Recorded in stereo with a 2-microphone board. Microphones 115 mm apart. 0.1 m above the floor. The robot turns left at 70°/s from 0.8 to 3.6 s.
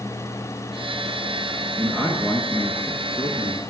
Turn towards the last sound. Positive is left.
turn(degrees=25)  # may be behind; listen again after turning